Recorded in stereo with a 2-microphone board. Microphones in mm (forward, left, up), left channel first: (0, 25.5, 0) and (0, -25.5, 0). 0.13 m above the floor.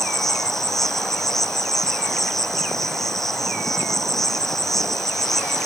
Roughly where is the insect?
Centre.